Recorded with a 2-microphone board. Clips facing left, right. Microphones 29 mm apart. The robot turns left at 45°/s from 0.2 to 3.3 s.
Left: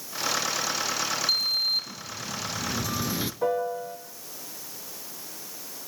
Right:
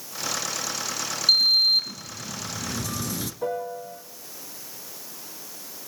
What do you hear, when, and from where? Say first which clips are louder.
1.3 s a sliding door: right 9 dB; 125° right, 0.8 m; by 3.3 s 145° left, 0.8 m
3.4 s a piano: left 3 dB; 20° left (ahead or behind), 2 m